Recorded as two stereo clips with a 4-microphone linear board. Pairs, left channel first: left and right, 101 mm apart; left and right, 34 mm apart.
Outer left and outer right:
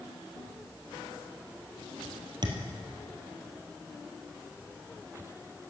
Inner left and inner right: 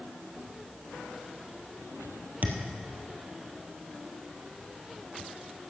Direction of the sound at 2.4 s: 50° right (ahead or behind).